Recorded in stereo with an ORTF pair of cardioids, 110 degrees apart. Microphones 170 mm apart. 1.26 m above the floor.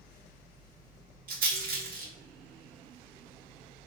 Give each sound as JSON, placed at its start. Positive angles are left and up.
{"t": 0.0, "sound": "a fan", "azimuth_deg": -55, "distance_m": 0.8}
{"t": 1.3, "sound": "a rattle", "azimuth_deg": -60, "distance_m": 0.9}